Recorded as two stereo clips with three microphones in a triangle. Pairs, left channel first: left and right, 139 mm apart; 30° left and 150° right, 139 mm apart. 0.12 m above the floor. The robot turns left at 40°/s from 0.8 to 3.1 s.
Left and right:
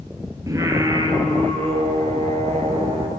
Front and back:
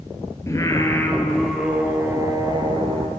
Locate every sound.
0.5 s singing: 35° right, 1.1 m; by 3.1 s 125° right, 1.1 m